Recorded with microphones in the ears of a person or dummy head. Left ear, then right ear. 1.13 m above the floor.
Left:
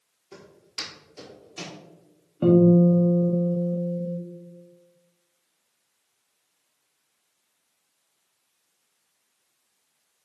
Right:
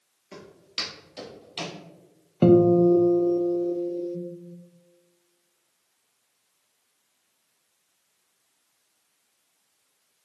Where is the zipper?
I don't hear a zipper.